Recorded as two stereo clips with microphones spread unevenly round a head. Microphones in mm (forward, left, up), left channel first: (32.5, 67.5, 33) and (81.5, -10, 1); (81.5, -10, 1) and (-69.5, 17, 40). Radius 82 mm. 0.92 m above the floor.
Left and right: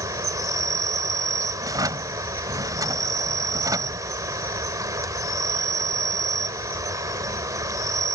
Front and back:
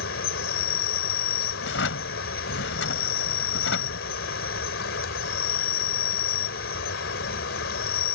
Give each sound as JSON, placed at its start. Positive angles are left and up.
{"t": 0.0, "sound": "an insect", "azimuth_deg": -5}
{"t": 1.6, "sound": "a drawer", "azimuth_deg": -5}